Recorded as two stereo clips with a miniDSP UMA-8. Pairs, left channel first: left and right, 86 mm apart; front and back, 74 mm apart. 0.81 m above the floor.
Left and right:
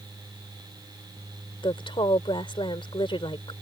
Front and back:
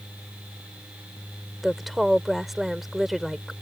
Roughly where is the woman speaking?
Left.